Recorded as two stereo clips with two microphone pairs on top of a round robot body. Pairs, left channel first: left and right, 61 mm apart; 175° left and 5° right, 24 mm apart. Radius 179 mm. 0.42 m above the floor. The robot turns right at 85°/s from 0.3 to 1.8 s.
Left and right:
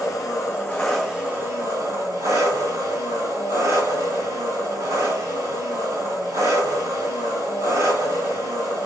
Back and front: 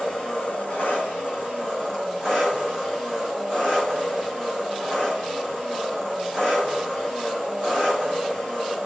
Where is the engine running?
115° left, 2.5 m; by 8.9 s 115° right, 2.5 m.